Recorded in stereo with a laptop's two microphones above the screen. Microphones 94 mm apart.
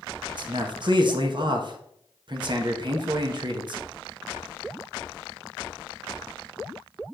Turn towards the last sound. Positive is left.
turn(degrees=-50)  # may be behind; listen again after turning